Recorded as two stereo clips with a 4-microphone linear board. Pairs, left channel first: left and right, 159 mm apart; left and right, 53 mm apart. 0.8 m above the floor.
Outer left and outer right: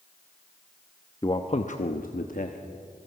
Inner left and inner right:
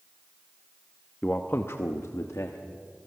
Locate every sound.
1.2 s a man speaking: 25° left (ahead or behind), 0.9 m; by 2.6 s 55° left (ahead or behind), 1.3 m